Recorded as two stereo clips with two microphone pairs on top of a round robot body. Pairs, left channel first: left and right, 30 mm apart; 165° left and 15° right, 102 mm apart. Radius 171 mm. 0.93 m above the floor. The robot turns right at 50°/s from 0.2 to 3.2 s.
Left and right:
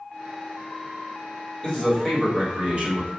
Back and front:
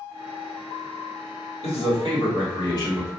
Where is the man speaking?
160° left, 1.7 m; by 3.1 s 130° right, 1.7 m.